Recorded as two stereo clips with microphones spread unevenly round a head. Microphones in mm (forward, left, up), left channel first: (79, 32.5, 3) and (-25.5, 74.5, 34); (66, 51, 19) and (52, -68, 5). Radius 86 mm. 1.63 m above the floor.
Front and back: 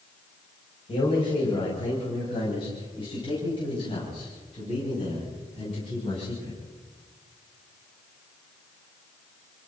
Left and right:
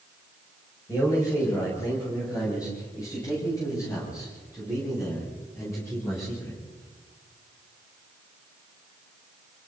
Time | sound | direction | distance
0.9 | a man speaking | 25° left | 9.5 m